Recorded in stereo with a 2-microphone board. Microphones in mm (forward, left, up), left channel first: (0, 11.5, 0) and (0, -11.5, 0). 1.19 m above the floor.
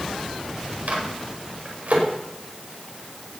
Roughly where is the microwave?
Right.